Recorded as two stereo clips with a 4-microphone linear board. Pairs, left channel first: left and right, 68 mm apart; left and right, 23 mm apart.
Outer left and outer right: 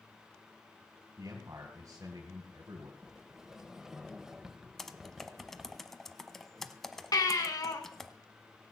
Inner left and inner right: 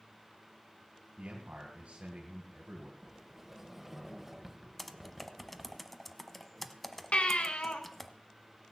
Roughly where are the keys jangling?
I don't hear keys jangling.